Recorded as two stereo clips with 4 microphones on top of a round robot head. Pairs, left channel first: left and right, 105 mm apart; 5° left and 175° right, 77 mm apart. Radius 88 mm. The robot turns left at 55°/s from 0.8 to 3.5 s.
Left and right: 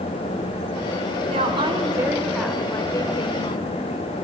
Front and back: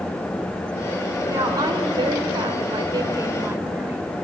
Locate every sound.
1.3 s a woman speaking: 120° right, 2.5 m; by 4.1 s 120° left, 2.5 m